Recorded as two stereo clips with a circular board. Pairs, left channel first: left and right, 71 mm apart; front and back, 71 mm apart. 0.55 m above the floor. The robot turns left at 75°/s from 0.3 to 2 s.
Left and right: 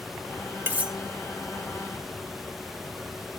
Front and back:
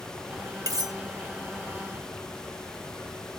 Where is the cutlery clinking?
150° right, 1.3 m; by 0.9 s 170° right, 1.3 m.